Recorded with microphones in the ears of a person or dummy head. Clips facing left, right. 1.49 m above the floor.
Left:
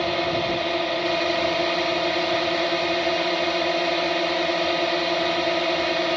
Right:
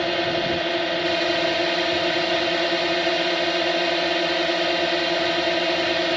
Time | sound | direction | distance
0.0 | a drone | 5° right (ahead or behind) | ?